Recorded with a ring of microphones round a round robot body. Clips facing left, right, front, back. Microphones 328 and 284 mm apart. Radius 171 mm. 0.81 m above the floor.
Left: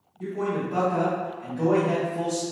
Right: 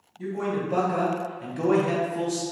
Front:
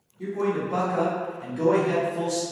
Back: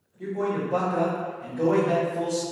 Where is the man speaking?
75° right, 1.4 m; by 2.4 s 5° right, 0.5 m.